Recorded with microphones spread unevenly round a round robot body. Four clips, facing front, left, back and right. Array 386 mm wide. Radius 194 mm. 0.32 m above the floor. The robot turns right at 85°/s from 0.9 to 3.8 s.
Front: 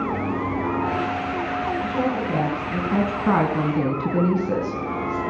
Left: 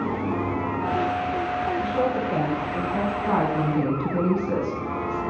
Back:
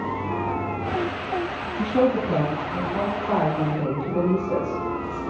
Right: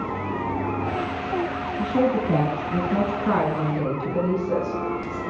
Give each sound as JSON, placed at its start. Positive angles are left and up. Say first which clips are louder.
{"t": 1.8, "sound": "a woman speaking", "louder": "right 7 dB, back 3 dB", "azimuth_deg": -145, "distance_m": 3.0}